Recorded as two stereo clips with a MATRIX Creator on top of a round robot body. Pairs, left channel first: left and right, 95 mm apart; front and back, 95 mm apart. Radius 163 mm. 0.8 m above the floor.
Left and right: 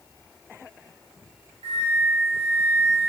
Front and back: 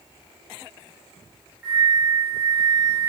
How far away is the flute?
About 1.0 m.